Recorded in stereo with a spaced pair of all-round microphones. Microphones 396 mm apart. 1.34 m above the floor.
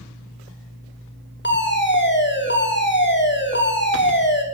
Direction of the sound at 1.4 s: 25° left (ahead or behind).